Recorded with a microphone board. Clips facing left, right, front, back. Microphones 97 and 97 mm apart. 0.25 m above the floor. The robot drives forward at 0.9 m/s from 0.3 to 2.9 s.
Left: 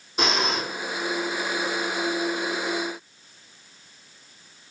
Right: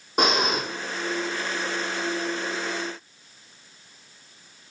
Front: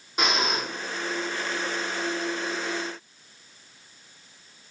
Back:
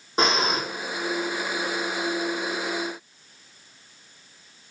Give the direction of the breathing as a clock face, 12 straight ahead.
4 o'clock.